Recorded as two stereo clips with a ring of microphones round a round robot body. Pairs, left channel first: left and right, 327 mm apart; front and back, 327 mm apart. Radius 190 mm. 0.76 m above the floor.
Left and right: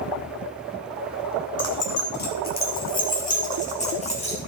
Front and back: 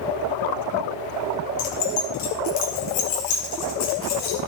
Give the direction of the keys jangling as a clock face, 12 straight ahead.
11 o'clock.